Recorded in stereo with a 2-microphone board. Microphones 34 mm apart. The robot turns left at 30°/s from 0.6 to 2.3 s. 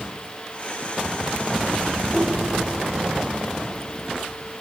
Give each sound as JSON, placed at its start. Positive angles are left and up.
{"t": 2.1, "sound": "a whoosh", "side_deg": 5, "distance_m": 5.5}